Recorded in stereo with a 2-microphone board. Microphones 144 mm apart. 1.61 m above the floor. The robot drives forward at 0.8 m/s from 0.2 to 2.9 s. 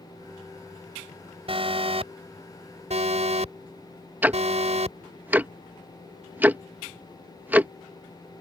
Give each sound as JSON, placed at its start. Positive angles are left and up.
{"t": 1.5, "sound": "an alarm", "side_deg": -40}
{"t": 4.2, "sound": "ticking", "side_deg": -10}